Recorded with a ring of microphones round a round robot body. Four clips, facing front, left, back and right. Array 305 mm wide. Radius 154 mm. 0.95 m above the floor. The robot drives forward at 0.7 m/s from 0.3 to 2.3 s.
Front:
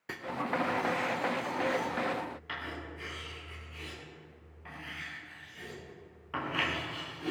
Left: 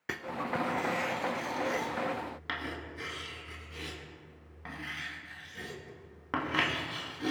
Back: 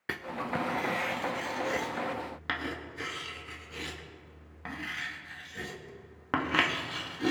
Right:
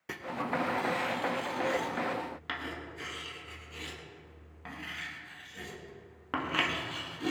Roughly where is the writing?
Behind left.